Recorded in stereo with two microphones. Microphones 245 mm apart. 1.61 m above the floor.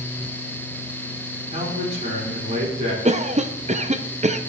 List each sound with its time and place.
1.5 s a man speaking: 30° right (ahead or behind), 5.5 m
3.0 s a cough: 30° right (ahead or behind), 0.5 m